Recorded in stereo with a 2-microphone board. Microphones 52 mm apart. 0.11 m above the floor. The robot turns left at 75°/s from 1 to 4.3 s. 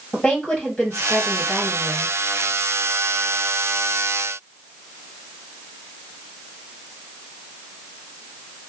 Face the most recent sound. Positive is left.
turn(degrees=140)